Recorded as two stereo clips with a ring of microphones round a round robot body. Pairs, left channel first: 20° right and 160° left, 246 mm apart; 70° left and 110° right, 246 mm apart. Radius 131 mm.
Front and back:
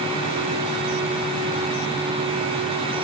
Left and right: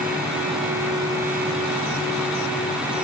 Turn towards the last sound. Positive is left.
No sound to turn to.